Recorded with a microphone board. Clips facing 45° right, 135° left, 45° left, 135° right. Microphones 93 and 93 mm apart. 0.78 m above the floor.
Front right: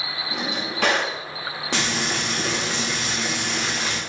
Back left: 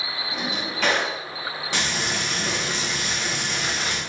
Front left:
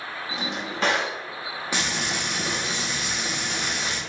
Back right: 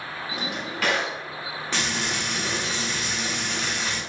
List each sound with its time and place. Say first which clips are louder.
0.3 s a drawer: front right 1 dB, front left 1 dB; 20° right, 0.8 m
1.7 s frying: front right 3 dB, even; 35° right, 1.0 m